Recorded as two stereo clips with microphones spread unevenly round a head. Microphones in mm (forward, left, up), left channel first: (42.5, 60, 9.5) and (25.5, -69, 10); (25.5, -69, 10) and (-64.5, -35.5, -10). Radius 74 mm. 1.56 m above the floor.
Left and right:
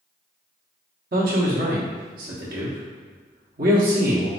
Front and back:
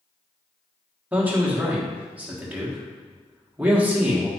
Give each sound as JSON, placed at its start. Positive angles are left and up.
{"t": 1.1, "sound": "a man speaking", "azimuth_deg": -125, "distance_m": 1.3}